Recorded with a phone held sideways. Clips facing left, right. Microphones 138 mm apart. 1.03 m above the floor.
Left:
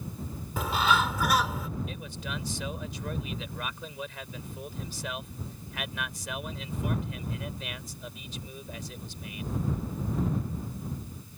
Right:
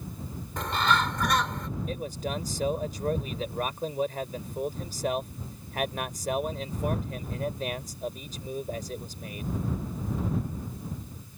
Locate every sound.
0.6 s a bird: 5° left (ahead or behind)
1.9 s a man speaking: 45° right (ahead or behind)